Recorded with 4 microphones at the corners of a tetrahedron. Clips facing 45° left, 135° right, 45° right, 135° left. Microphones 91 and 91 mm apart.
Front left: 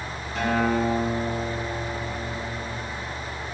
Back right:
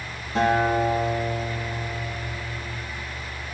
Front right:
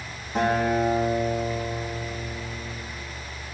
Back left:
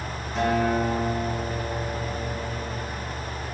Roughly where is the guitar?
Right.